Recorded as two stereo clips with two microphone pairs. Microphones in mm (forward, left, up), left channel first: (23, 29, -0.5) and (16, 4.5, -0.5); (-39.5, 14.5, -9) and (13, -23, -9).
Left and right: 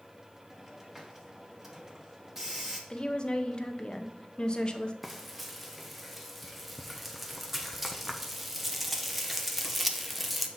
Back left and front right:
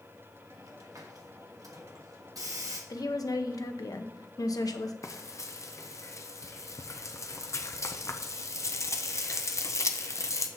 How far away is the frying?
About 0.6 m.